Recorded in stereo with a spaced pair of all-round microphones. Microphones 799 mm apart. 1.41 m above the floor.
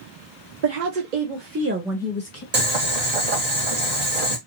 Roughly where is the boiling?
Right.